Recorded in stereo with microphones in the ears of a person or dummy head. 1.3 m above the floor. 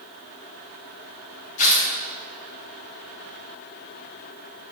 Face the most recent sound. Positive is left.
turn(degrees=50)  # may be behind; listen again after turning